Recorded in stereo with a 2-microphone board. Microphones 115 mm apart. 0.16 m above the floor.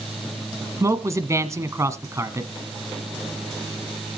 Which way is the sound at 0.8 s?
25° right (ahead or behind).